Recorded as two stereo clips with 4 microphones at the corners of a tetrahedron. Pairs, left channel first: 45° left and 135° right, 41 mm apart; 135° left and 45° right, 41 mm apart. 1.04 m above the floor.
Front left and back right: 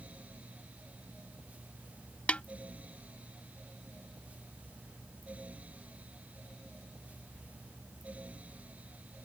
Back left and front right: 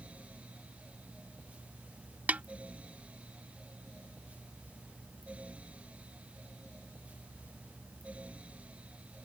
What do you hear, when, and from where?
2.3 s a snare drum: 5° right